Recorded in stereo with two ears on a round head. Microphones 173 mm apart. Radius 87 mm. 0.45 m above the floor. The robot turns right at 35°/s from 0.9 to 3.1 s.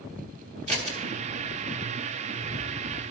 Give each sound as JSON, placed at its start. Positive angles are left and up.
{"t": 0.7, "sound": "scissors", "side_deg": -35, "distance_m": 1.5}